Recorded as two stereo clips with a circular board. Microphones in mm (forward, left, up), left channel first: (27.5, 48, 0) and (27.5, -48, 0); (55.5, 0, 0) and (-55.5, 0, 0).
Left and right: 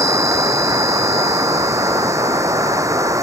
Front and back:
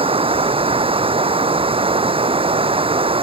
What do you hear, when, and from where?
0.0 s running water: 145° right